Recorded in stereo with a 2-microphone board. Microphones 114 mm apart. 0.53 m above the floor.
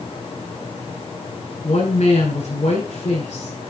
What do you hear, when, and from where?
1.6 s a woman speaking: 80° left, 6.5 m